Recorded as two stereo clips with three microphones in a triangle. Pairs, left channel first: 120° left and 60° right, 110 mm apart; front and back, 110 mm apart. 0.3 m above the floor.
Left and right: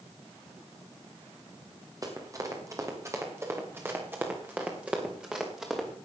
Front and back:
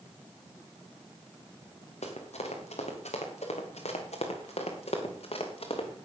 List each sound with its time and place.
2.0 s running footsteps: 5° right, 4.5 m; by 5.9 s 25° left, 4 m